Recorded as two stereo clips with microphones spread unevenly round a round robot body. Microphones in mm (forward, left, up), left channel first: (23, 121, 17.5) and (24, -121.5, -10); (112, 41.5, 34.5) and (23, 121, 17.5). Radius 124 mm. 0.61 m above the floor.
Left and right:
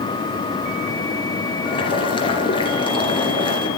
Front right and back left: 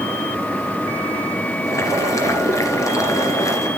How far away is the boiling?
About 2.5 m.